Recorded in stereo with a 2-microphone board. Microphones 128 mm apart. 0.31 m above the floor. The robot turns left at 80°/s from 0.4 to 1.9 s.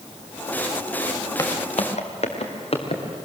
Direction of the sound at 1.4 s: 25° left (ahead or behind).